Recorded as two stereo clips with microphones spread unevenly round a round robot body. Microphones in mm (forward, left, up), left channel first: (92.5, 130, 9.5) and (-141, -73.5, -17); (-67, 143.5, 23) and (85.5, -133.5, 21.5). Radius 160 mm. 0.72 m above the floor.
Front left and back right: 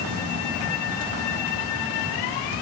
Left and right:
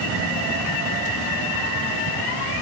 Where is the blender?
No blender in this recording.